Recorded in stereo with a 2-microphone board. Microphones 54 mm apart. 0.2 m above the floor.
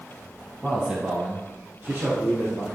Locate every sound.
0.6 s a man speaking: 10° right (ahead or behind), 1.4 m; by 2.6 s 60° right (ahead or behind), 3 m